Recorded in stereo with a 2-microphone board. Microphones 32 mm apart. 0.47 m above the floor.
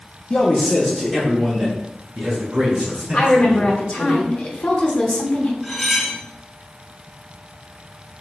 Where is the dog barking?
No dog barking in this recording.